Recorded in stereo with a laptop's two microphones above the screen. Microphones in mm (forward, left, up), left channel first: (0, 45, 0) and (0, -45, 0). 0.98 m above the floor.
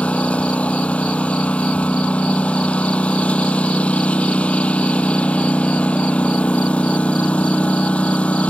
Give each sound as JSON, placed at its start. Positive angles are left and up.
{"t": 0.0, "sound": "a lawn mower", "side_deg": 15}